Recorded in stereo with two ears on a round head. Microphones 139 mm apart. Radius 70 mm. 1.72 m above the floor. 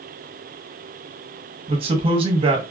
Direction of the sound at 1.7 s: 35° right (ahead or behind).